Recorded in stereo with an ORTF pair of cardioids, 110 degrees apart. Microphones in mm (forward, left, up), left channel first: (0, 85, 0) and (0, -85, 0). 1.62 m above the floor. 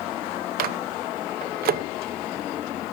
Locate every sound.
0.6 s a microwave: 65° right, 0.8 m